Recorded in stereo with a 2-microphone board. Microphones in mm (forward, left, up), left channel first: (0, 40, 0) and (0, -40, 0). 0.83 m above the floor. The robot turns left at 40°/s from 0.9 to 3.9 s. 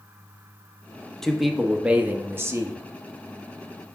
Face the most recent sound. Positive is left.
turn(degrees=-100)